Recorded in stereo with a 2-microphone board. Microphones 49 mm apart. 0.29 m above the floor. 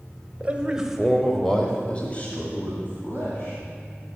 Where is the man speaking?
20° right (ahead or behind), 1.2 m; by 3.6 s 40° left (ahead or behind), 2.5 m.